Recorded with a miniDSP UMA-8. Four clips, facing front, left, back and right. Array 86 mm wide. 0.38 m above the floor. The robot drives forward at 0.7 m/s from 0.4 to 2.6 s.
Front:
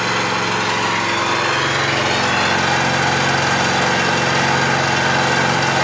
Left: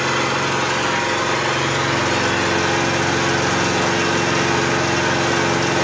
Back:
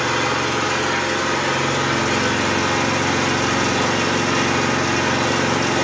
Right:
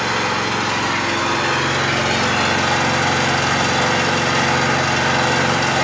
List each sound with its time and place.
0.0 s an engine running: 25° right, 3 m; by 5.8 s 50° right, 1.6 m